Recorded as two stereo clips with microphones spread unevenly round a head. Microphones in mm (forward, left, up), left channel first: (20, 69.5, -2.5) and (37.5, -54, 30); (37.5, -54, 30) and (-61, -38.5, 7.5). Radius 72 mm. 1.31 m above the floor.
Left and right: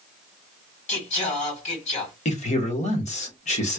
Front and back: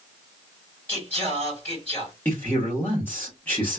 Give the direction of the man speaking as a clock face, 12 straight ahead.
10 o'clock.